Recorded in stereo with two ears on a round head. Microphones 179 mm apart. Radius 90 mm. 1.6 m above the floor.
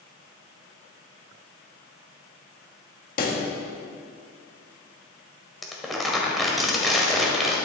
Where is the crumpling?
Centre (ahead or behind), 1.4 m.